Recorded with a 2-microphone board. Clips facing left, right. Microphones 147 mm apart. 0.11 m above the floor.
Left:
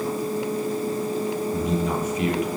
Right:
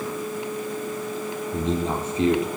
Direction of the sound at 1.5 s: 25° right (ahead or behind).